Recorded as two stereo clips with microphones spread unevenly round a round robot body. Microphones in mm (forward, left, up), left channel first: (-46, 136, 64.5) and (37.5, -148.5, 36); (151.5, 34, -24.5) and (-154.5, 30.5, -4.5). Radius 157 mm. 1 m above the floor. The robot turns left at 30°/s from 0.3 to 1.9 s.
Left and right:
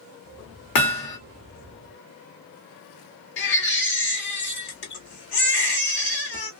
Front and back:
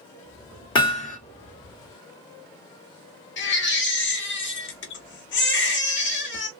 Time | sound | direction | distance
0.8 | hammering | 75° left | 1.4 m
3.4 | a baby crying | 55° left | 1.3 m